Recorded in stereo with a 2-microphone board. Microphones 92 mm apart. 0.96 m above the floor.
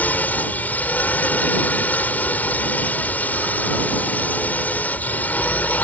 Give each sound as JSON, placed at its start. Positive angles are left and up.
{"t": 0.0, "sound": "a drone", "side_deg": 20}